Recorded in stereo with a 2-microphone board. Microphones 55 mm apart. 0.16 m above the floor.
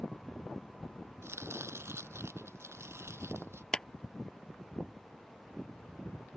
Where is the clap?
15° left (ahead or behind).